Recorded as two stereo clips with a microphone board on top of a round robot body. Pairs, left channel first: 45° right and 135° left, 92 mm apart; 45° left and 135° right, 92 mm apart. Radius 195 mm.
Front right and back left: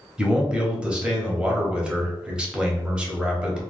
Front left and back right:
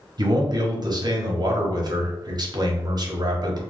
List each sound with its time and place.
0.2 s a man speaking: 150° right, 1.0 m